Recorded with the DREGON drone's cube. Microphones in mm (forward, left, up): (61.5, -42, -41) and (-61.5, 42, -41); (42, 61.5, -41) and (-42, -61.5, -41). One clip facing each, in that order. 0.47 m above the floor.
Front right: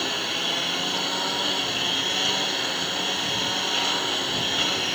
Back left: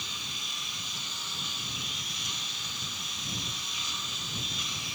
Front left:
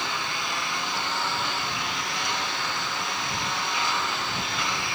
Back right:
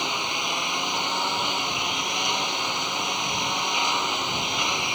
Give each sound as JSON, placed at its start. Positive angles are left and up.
{"t": 0.0, "sound": "a lawn mower", "azimuth_deg": -55}